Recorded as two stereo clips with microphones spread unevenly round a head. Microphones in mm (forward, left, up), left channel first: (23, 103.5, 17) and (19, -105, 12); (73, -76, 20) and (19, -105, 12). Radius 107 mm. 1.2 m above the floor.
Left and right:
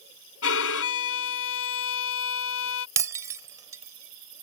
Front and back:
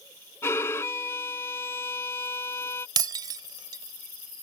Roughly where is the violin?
Left.